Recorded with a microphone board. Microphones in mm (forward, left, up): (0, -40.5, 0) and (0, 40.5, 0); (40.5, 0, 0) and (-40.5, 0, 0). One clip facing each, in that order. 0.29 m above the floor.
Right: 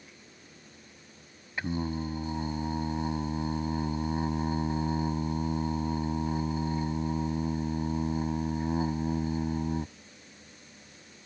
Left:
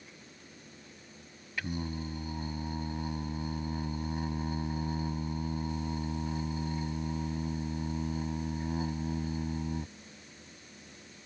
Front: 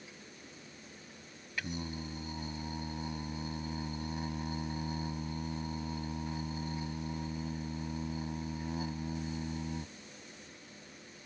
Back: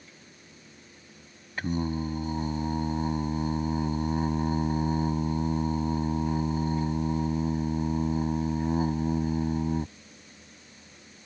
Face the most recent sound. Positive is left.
turn(degrees=-145)